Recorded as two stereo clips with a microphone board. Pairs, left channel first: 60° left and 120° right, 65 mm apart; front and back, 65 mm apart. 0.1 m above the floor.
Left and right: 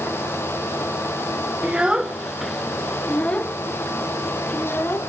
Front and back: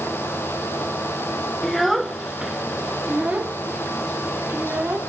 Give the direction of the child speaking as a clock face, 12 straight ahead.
3 o'clock.